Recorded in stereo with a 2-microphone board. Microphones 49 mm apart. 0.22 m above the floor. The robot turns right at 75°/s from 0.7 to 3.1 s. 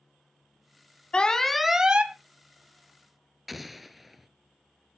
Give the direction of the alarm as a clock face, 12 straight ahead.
7 o'clock.